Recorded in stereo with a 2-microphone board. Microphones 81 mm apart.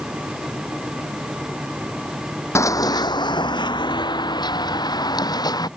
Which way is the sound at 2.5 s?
40° left (ahead or behind).